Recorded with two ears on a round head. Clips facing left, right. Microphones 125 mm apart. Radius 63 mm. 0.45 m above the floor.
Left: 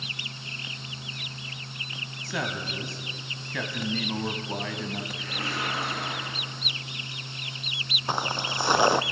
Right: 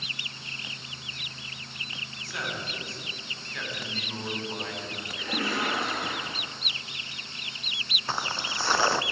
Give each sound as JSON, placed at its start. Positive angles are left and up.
{"t": 2.2, "sound": "a man speaking", "side_deg": 70, "distance_m": 3.5}
{"t": 5.2, "sound": "a splash", "side_deg": -75, "distance_m": 6.0}
{"t": 8.1, "sound": "footsteps", "side_deg": 15, "distance_m": 0.9}